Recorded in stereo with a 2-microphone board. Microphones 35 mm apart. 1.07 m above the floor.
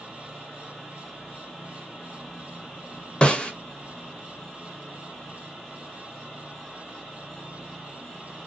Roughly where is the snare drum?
Left.